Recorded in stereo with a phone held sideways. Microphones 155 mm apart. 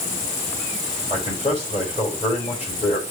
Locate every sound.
1.1 s a man speaking: 45° left (ahead or behind), 5.5 m